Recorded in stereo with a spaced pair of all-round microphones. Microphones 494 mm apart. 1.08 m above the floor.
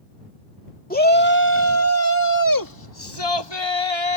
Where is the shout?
15° left (ahead or behind); by 4.2 s 70° left (ahead or behind).